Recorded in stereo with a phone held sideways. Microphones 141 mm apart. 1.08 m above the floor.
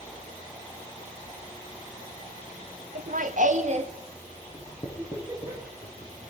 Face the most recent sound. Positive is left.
turn(degrees=20)  # may be behind; listen again after turning